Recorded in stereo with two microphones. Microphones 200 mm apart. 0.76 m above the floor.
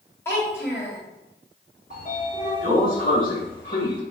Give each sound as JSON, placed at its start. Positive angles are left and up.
{"t": 0.2, "sound": "a child speaking", "side_deg": 10, "distance_m": 1.8}
{"t": 1.9, "sound": "a sliding door", "side_deg": 45, "distance_m": 1.2}